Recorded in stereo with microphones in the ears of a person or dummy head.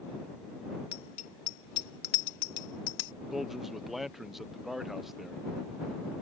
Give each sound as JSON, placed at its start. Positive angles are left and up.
{"t": 0.9, "sound": "a bicycle bell", "side_deg": 40}
{"t": 3.3, "sound": "a man speaking", "side_deg": -5}